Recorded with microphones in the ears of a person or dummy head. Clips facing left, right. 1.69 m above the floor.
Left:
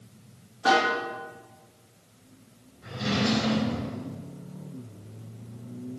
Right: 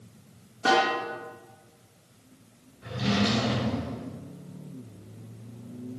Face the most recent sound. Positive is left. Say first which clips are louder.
# right 1 dB
turn(degrees=-55)  # may be behind; listen again after turning